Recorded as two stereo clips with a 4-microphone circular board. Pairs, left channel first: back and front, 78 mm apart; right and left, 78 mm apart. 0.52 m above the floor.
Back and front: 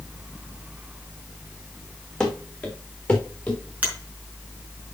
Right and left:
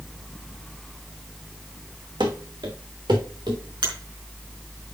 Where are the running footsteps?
100° left, 2.5 m; by 3.6 s 105° left, 3.5 m.